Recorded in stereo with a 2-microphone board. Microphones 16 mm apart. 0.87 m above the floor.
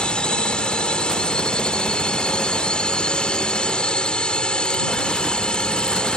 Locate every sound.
0.0 s a drone: 60° left (ahead or behind)